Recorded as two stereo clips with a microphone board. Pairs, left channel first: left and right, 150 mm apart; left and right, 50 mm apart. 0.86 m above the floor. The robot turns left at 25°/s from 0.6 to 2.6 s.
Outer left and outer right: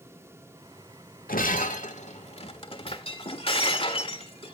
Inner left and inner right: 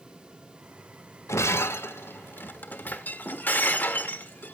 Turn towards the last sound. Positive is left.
turn(degrees=40)